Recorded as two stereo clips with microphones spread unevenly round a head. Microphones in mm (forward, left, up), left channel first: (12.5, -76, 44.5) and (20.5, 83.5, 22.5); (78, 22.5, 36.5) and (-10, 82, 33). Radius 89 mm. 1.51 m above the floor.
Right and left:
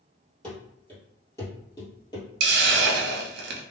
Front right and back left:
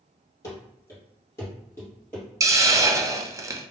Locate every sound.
0.4 s running footsteps: 25° right, 1.7 m; by 2.3 s 100° right, 1.7 m
2.4 s a hiss: 85° left, 0.5 m